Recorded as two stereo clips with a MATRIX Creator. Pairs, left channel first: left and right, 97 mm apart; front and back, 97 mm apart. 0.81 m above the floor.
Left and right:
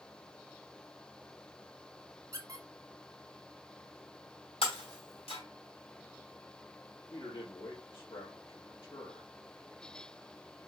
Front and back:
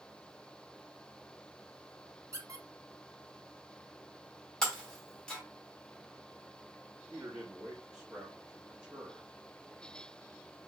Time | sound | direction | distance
2.3 | a squeak | 130° right | 0.9 m
4.6 | breaking glass | 80° left | 1.5 m
7.1 | a man speaking | 85° left | 1.1 m